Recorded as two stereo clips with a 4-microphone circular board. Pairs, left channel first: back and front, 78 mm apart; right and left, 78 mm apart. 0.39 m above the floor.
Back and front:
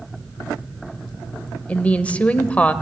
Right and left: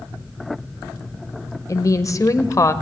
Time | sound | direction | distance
1.7 | a woman speaking | 115° right | 1.3 m